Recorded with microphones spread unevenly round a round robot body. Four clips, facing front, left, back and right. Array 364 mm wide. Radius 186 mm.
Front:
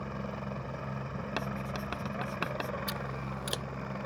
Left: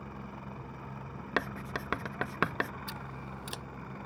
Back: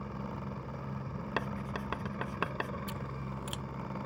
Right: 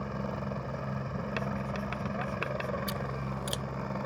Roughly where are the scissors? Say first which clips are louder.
Right 7 dB, front 3 dB; ahead.